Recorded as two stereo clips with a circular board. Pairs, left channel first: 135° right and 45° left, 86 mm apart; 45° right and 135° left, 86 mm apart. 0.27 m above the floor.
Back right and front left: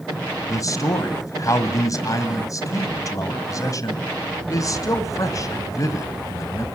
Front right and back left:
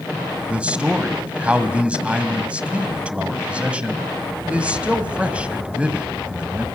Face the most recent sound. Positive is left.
turn(degrees=-155)